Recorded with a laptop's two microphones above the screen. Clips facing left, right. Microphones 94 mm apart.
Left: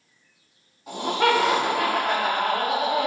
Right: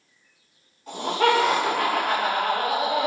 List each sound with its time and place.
0.9 s laughter: 10° left (ahead or behind), 1.9 m; by 3.1 s 20° right (ahead or behind), 1.0 m